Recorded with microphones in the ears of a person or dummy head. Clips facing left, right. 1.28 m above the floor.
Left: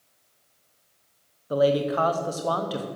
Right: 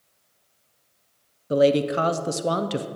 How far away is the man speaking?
About 0.5 m.